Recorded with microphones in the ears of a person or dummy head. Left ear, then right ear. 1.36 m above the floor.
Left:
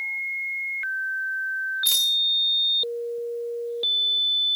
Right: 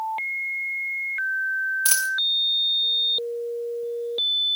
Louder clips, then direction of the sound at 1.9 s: Left 2 dB; 30° right (ahead or behind).